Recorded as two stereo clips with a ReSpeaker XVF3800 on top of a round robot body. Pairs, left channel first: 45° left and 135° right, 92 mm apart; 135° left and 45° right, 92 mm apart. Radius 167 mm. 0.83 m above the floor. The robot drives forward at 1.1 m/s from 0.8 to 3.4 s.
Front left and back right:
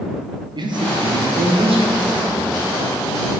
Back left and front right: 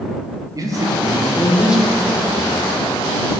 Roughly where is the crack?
I don't hear a crack.